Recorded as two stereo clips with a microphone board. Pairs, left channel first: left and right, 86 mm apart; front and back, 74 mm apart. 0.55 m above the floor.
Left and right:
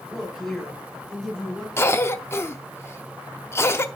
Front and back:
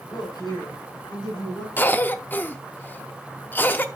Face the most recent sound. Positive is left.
turn(degrees=45)